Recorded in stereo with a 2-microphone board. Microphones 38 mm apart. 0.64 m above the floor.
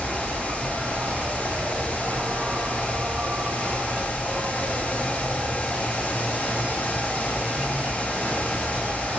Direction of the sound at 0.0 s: 40° right (ahead or behind).